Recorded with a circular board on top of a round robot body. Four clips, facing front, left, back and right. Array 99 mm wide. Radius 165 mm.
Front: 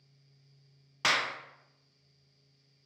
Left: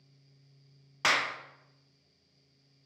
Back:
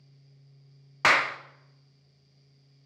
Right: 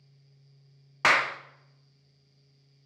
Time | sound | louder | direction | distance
1.0 | a clap | right 5 dB, back 7 dB | 140° right | 0.6 m